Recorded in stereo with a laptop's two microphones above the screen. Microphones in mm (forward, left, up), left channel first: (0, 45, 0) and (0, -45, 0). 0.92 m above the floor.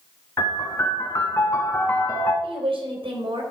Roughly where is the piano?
Left.